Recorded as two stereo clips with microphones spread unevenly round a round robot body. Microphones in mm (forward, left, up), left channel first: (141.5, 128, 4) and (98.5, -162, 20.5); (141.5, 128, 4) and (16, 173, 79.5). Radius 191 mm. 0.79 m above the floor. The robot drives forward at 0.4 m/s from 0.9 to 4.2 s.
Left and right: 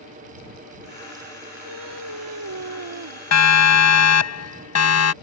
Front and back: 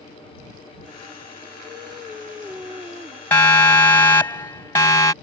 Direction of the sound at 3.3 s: 50° left.